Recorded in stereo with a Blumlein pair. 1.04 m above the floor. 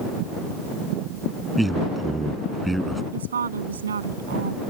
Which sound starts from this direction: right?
A woman speaking, at 3.1 s.